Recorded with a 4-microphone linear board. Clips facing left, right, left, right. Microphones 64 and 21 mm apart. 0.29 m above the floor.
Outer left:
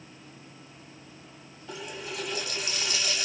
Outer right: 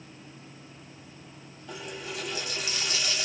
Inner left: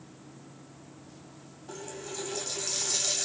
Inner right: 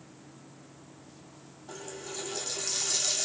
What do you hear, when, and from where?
1.7 s a running tap: centre (ahead or behind), 1.0 m